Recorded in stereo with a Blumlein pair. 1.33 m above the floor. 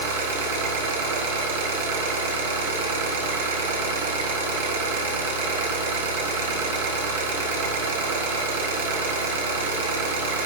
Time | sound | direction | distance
0.0 | an engine running | 55° right | 1.2 m